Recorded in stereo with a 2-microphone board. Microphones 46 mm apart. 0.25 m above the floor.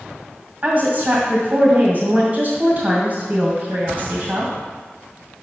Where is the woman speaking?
40° right (ahead or behind), 1.8 m.